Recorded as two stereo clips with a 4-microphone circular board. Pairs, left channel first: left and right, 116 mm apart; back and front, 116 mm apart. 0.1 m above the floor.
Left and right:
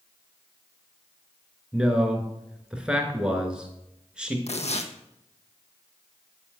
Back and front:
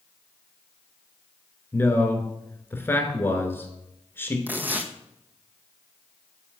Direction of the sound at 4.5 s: 75° left.